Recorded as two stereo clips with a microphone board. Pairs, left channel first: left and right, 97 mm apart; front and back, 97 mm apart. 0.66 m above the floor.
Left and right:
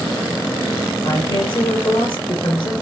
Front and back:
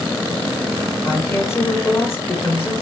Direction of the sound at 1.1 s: 60° left.